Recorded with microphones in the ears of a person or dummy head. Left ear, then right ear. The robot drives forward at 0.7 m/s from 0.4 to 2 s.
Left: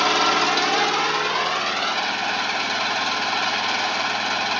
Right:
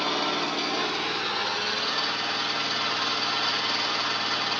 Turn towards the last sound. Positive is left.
turn(degrees=25)  # may be behind; listen again after turning